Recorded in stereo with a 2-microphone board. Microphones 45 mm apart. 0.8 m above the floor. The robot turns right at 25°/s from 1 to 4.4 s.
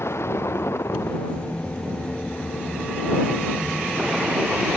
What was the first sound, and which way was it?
A vehicle, 120° left.